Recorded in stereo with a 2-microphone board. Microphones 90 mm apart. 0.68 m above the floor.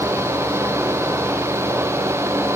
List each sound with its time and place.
Only background noise.